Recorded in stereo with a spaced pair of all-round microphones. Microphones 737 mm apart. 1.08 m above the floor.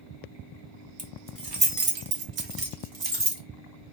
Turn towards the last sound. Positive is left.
turn(degrees=-90)